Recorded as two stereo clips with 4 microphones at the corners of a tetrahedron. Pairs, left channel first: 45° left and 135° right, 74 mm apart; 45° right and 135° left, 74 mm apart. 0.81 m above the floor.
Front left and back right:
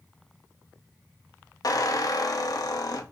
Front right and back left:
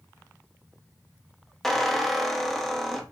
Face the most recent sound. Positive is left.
turn(degrees=40)